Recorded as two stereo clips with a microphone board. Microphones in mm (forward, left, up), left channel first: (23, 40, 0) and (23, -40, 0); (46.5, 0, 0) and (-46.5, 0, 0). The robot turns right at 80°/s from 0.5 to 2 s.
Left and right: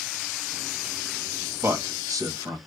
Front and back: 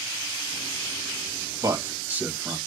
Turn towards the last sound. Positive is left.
turn(degrees=-115)